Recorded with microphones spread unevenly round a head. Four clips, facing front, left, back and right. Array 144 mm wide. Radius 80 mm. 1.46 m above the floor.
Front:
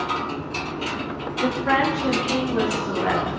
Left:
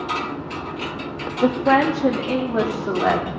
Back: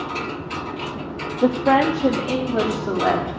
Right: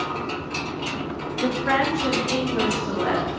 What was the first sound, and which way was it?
A woman speaking, 140° left.